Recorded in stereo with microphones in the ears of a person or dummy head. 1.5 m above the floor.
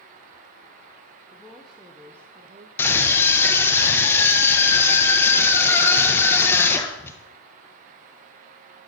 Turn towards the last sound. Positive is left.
turn(degrees=15)  # may be behind; listen again after turning